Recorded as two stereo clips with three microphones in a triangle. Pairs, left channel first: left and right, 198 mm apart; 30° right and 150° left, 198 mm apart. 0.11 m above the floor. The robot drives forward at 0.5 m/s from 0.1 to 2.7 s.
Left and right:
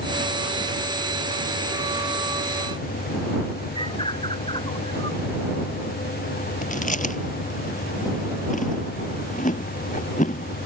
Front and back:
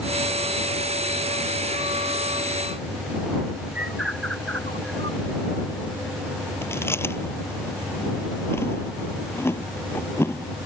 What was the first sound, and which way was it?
A bird, 155° left.